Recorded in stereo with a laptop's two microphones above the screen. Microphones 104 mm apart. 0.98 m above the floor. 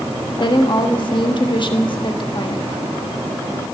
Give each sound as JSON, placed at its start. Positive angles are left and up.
{"t": 0.4, "sound": "a woman speaking", "side_deg": 50, "distance_m": 1.3}